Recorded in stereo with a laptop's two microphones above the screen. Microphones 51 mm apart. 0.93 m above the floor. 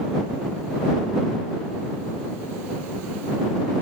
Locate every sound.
Only background noise.